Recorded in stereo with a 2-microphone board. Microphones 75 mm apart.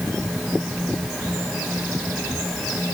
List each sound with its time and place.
Only background noise.